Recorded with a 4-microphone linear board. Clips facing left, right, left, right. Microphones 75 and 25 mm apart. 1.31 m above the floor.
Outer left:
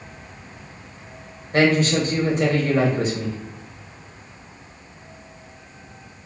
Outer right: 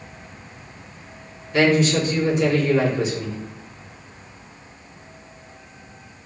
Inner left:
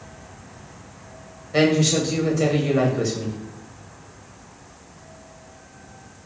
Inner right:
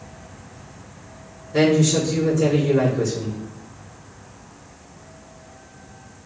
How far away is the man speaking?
About 1.1 m.